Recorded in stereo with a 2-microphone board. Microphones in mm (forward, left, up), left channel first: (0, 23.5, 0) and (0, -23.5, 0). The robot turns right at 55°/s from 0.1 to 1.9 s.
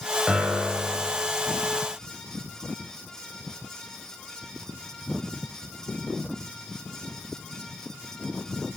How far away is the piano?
About 4 m.